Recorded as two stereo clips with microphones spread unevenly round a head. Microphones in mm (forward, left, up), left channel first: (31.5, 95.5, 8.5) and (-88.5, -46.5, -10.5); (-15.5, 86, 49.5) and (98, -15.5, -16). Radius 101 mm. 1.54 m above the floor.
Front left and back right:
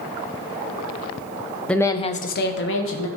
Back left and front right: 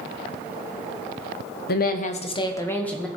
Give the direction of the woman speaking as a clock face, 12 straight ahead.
8 o'clock.